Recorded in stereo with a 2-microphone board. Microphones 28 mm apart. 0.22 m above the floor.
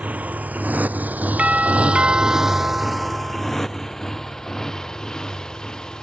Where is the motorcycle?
65° right (ahead or behind); by 6.0 s 25° left (ahead or behind).